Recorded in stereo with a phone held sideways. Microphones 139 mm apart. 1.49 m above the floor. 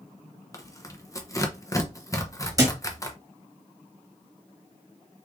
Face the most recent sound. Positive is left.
turn(degrees=-25)  # may be behind; listen again after turning